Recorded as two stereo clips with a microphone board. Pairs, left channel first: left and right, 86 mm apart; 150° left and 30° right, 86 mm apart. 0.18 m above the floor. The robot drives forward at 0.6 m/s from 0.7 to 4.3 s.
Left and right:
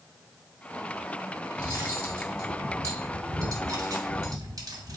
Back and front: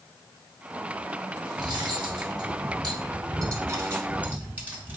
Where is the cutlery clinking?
30° right, 2.0 m; by 5.0 s 95° right, 1.1 m.